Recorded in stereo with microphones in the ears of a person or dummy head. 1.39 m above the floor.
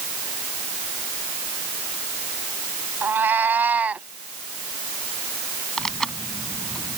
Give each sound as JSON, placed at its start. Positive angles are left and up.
{"t": 3.0, "sound": "a cat meowing", "side_deg": -10}
{"t": 5.8, "sound": "tearing paper", "side_deg": 0}